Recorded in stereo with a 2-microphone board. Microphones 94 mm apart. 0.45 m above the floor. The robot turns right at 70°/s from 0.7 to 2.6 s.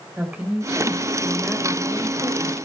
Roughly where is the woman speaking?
Ahead.